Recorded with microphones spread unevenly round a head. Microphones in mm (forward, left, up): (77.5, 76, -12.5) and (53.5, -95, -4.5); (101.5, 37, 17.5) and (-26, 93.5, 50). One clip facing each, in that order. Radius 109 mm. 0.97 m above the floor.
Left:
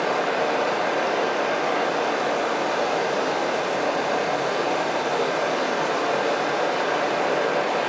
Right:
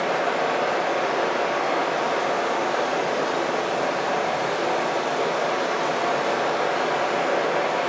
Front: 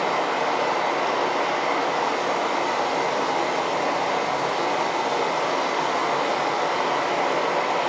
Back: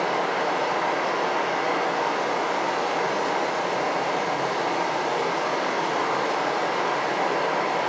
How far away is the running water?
About 0.9 m.